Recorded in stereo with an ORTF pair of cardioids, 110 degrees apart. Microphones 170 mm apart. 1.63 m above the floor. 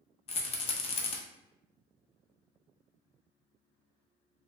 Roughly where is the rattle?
Ahead left.